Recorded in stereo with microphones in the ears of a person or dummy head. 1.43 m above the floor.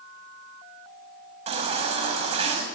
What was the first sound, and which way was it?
A baby crying, 35° right (ahead or behind).